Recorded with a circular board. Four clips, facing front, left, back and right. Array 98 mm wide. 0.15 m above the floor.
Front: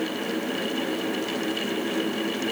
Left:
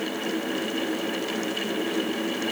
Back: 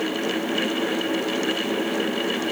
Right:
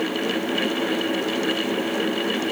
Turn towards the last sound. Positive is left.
No sound to turn to.